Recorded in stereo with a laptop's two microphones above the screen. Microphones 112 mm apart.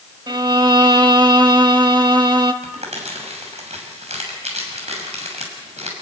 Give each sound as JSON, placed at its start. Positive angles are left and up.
{"t": 0.3, "sound": "a violin", "side_deg": -40, "distance_m": 1.5}
{"t": 2.6, "sound": "crumpling", "side_deg": -75, "distance_m": 6.5}